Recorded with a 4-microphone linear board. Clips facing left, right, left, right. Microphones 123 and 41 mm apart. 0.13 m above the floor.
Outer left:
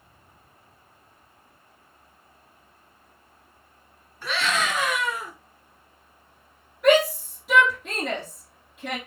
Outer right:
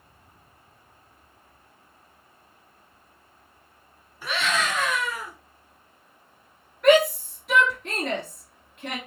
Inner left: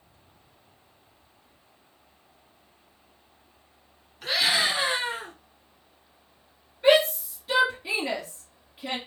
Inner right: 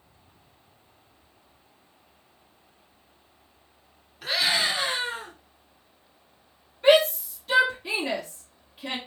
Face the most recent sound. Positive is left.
turn(degrees=5)  # may be behind; listen again after turning